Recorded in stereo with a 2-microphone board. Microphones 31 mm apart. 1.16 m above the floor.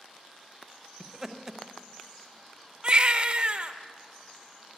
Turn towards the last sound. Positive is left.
turn(degrees=-35)  # may be behind; listen again after turning